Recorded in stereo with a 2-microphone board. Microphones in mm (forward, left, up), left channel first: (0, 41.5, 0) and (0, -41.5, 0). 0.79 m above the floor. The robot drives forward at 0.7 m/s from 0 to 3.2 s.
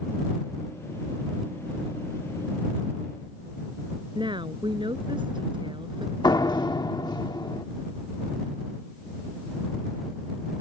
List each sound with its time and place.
4.2 s a woman speaking: 75° right (ahead or behind)
6.2 s a door slam: 60° left (ahead or behind)